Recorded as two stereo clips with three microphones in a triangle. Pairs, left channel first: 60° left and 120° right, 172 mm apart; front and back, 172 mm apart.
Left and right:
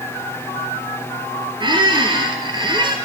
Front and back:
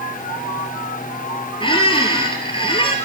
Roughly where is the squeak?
Ahead right.